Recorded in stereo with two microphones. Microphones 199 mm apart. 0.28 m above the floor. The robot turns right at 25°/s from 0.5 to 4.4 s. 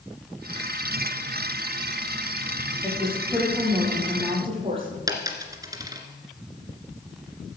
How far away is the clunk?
No clunk in this recording.